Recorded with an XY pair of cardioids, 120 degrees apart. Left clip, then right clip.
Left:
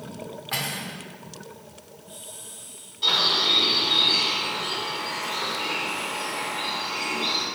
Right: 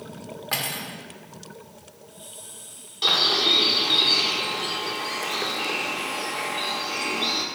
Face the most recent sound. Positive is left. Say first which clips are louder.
# right 1 dB
turn(degrees=-65)